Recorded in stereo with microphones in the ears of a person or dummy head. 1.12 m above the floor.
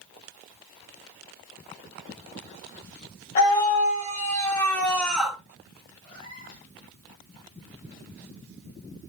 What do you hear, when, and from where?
3.4 s a scream: 50° left (ahead or behind), 2 m; by 5.4 s 5° right (ahead or behind), 2 m
6.0 s a cat meowing: 50° left (ahead or behind), 5.5 m